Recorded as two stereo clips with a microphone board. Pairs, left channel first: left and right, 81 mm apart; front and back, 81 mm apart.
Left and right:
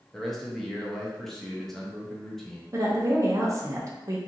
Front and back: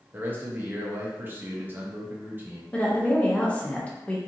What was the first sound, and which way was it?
A man speaking, 170° left.